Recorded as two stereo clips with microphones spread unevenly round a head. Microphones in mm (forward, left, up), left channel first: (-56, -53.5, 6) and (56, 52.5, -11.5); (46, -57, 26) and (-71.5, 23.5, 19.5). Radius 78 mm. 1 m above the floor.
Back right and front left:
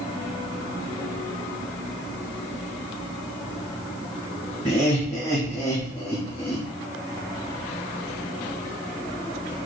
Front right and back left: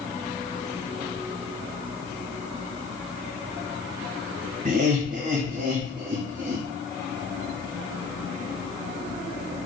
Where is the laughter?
140° left, 1.1 m; by 6.6 s 155° left, 2 m.